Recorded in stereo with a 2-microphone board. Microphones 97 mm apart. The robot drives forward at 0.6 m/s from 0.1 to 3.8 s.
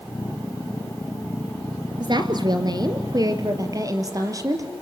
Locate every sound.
2.0 s a woman speaking: 50° right (ahead or behind), 2 m; by 4.7 s 35° right (ahead or behind), 2.5 m